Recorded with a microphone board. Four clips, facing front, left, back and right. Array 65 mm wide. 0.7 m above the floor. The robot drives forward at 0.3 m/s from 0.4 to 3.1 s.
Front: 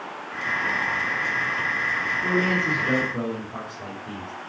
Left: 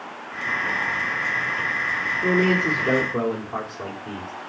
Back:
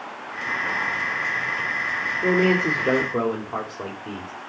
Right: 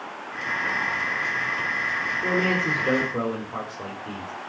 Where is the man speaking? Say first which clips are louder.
Left 4 dB, back 5 dB; 170° left, 2 m.